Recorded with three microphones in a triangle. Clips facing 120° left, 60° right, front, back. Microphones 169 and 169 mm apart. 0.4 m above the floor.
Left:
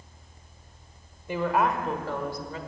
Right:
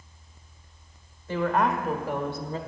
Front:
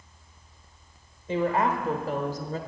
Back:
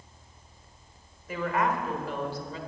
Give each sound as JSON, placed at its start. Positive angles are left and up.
{"t": 1.3, "sound": "a woman speaking", "azimuth_deg": 55, "distance_m": 1.2}